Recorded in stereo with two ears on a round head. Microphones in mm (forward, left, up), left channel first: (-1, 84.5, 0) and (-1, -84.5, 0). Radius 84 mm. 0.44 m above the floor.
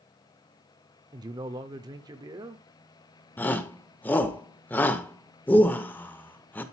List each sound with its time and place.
1.1 s a man speaking: 20° right (ahead or behind), 0.9 m
3.4 s a shout: 10° left (ahead or behind), 1.1 m